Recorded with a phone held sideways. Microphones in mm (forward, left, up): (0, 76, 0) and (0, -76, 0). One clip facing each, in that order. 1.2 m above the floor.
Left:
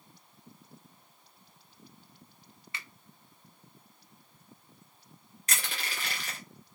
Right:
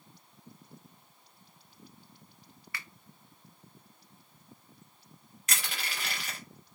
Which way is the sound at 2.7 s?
25° left (ahead or behind).